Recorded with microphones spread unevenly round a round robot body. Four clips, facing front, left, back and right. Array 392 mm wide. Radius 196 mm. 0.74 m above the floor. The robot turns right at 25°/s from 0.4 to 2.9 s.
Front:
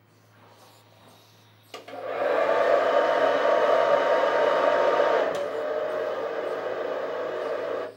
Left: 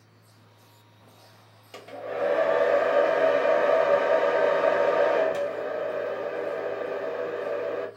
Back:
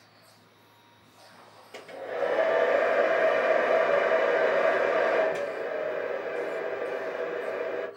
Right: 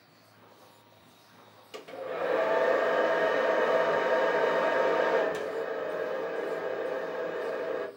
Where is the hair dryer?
35° right, 0.8 m; by 7.9 s 5° right, 0.8 m.